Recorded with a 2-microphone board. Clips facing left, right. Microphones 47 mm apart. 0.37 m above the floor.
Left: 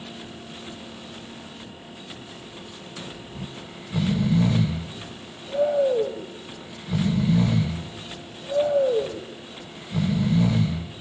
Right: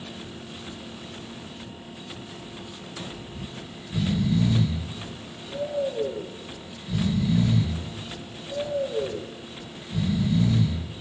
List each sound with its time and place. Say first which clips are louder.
3.4 s snoring: left 1 dB; 50° left (ahead or behind), 2 m